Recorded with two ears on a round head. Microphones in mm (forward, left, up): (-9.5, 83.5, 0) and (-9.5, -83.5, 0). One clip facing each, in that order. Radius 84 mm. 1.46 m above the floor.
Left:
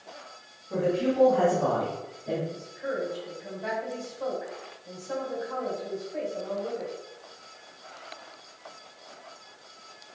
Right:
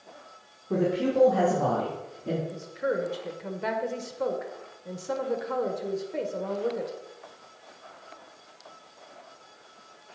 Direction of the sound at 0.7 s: 85° right.